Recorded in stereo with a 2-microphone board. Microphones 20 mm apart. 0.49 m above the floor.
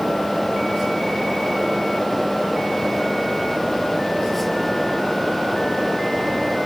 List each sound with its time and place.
Only background noise.